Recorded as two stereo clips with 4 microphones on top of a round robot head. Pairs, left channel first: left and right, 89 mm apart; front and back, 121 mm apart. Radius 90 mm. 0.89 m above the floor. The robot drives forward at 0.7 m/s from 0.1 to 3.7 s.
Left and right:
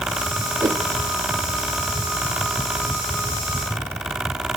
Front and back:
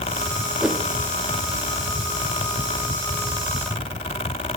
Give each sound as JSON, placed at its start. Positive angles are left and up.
{"t": 0.6, "sound": "a whoosh", "azimuth_deg": -100, "distance_m": 1.1}